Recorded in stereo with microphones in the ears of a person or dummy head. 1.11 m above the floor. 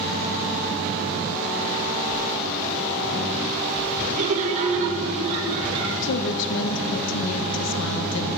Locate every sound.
4.1 s laughter: 40° right (ahead or behind), 0.9 m; by 5.9 s 35° right (ahead or behind), 1.9 m
6.0 s a woman speaking: 70° left (ahead or behind), 0.8 m